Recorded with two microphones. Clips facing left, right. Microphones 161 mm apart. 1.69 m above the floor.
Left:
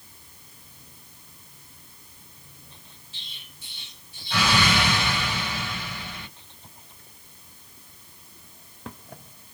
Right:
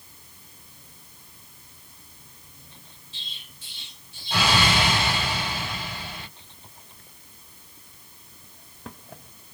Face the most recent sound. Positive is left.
turn(degrees=-25)  # may be behind; listen again after turning